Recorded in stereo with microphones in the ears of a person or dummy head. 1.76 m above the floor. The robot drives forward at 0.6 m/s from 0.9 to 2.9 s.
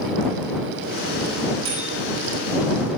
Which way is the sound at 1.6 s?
70° right (ahead or behind).